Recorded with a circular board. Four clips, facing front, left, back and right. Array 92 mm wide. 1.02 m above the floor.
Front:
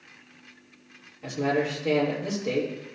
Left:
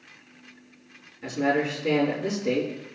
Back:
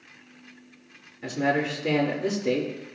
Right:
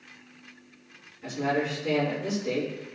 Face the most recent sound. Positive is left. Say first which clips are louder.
# left 3 dB, back 1 dB
turn(degrees=155)